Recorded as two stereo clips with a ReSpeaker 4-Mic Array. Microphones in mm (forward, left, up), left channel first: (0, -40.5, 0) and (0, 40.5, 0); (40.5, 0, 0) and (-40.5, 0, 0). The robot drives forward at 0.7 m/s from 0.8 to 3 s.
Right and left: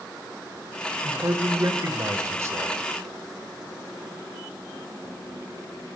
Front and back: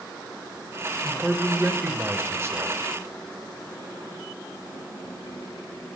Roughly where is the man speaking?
Left.